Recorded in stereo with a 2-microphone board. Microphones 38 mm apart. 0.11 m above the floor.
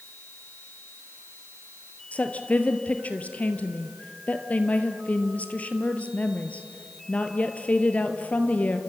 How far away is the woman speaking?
About 2 m.